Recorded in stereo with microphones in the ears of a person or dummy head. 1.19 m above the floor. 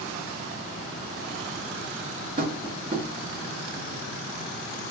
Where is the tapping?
40° right (ahead or behind), 0.8 m.